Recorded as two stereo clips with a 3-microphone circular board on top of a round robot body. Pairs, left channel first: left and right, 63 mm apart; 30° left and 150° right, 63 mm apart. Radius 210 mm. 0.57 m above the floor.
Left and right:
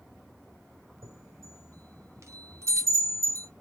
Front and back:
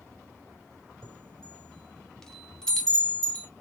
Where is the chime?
50° right, 2 m.